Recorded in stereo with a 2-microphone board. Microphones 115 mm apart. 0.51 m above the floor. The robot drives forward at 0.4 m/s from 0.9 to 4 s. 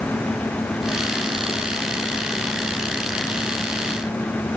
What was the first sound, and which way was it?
Only background noise.